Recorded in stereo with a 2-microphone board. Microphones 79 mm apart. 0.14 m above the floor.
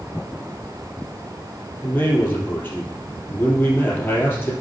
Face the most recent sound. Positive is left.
turn(degrees=25)  # may be behind; listen again after turning